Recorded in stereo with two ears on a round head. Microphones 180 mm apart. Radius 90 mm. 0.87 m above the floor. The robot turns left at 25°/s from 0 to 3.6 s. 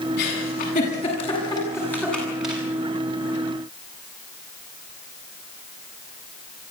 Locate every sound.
0.2 s a giggle: 55° left (ahead or behind), 8.5 m; by 2.6 s 5° right (ahead or behind), 8.5 m